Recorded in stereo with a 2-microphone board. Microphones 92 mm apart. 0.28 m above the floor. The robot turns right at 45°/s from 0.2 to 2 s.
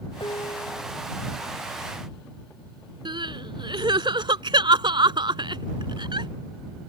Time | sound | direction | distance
0.2 | dishes clattering | 65° left | ?
3.0 | crying | 60° right (ahead or behind) | ?